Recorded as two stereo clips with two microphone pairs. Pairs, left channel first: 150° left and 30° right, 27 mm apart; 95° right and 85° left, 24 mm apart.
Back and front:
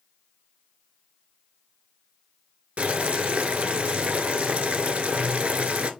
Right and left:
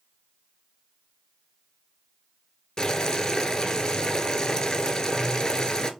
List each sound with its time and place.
2.8 s boiling: 45° right, 0.8 m